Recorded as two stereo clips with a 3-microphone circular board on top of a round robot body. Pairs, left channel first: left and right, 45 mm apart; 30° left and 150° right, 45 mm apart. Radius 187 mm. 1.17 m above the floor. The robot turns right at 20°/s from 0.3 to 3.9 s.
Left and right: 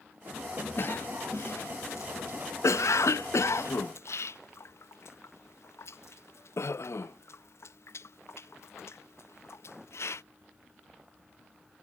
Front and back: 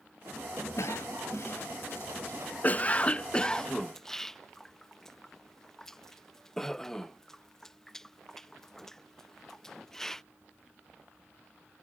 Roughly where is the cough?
Ahead left.